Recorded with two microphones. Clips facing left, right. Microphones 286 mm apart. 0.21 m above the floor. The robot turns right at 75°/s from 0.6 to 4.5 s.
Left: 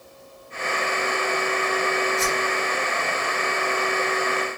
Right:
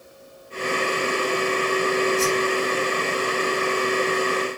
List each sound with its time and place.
2.2 s a whoosh: 20° right (ahead or behind), 1.7 m; by 2.5 s 5° left (ahead or behind), 1.7 m